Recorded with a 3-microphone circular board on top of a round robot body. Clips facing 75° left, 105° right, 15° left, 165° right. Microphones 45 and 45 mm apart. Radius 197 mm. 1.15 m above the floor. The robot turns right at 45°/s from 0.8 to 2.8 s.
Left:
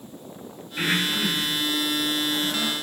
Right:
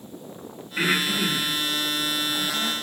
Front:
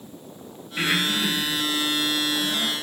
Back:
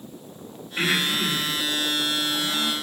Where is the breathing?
85° right, 4.5 m; by 2.7 s straight ahead, 4.5 m.